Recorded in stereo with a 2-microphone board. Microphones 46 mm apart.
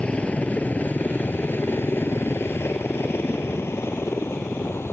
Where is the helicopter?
30° left (ahead or behind); by 4.9 s 65° left (ahead or behind).